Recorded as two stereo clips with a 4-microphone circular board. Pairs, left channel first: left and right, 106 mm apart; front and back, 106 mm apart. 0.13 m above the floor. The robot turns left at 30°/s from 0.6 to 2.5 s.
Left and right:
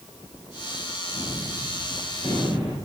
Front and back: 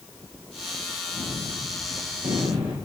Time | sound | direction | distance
1.1 | a gunshot | 150° right | 3.5 m